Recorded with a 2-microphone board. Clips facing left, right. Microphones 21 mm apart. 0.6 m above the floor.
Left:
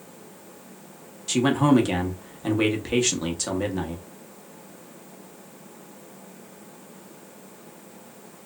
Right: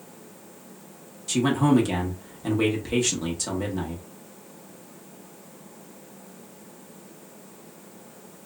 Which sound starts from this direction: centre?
A man speaking, at 1.3 s.